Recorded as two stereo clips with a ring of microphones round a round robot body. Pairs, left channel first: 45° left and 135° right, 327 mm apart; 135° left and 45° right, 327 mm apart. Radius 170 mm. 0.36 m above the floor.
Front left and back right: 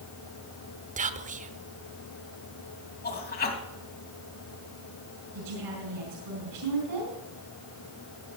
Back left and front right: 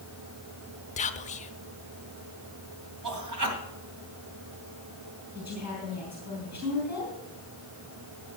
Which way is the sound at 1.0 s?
175° right.